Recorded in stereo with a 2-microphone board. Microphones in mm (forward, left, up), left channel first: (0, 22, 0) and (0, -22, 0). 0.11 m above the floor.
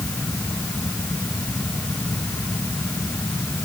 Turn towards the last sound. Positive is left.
No sound to turn to.